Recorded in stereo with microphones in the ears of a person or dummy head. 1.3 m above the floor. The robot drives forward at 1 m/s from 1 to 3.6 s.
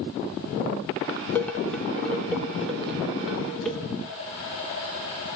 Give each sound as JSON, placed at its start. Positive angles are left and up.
{"t": 1.4, "sound": "dishes clattering", "side_deg": 5, "distance_m": 0.5}